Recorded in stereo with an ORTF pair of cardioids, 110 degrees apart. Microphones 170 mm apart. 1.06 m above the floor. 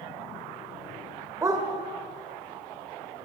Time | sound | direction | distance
1.4 | a dog barking | 20° right | 1.8 m